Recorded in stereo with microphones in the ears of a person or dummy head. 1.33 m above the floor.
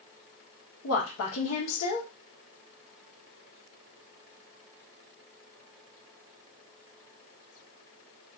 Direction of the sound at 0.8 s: 80° left.